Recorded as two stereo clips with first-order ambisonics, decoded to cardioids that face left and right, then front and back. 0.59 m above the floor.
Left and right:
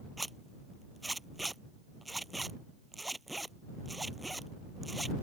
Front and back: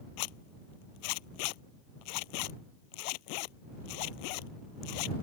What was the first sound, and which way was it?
A zipper, 5° right.